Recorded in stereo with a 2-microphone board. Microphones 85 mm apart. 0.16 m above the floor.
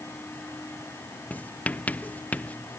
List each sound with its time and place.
1.3 s writing: 15° left (ahead or behind)